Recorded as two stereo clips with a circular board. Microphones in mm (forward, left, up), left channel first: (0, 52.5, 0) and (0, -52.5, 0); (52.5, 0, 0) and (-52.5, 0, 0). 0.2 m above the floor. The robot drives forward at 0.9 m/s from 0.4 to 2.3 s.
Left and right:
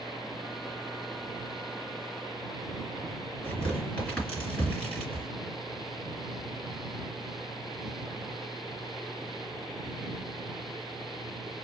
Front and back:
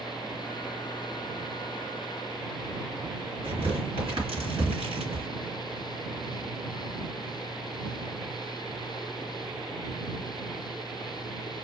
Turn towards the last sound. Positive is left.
turn(degrees=165)